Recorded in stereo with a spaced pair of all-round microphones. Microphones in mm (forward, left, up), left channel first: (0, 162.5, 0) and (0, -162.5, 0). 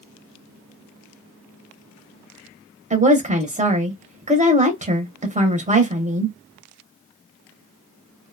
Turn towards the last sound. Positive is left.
turn(degrees=-20)  # may be behind; listen again after turning